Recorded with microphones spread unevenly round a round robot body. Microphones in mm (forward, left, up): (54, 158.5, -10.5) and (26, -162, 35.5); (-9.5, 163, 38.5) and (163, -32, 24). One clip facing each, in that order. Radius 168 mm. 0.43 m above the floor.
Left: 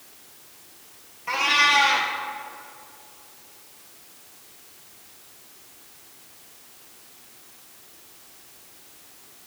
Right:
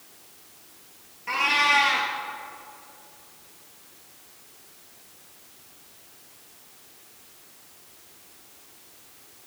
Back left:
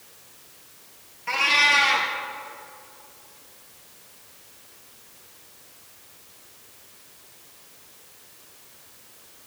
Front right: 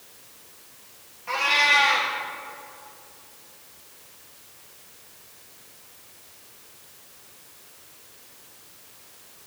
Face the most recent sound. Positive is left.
turn(degrees=180)